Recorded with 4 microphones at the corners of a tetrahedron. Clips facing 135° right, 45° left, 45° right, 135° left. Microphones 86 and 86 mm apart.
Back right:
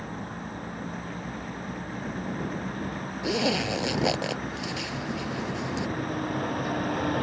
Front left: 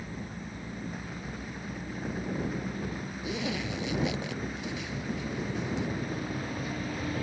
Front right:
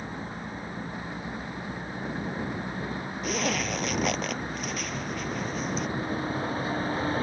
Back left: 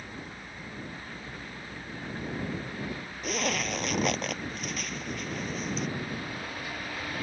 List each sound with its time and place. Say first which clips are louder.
0.0 s a vehicle: back right 4 dB, front right 6 dB; 100° right
3.2 s a zipper: back right 8 dB, front right 2 dB; 135° right